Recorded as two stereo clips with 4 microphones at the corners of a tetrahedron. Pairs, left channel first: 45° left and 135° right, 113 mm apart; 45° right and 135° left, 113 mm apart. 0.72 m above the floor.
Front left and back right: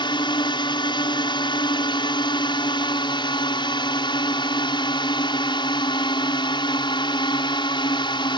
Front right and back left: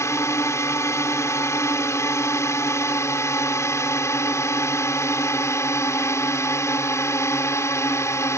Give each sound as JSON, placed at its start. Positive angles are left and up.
{"t": 0.0, "sound": "a drone", "azimuth_deg": 15}